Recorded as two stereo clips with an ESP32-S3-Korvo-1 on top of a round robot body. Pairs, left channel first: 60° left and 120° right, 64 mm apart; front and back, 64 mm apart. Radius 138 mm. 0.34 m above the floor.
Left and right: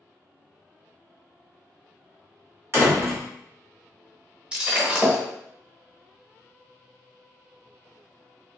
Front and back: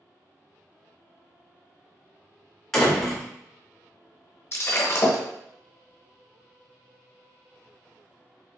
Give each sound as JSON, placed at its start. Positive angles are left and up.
{"t": 2.7, "sound": "a door slam", "azimuth_deg": -85, "distance_m": 1.5}
{"t": 4.5, "sound": "breaking glass", "azimuth_deg": -50, "distance_m": 1.0}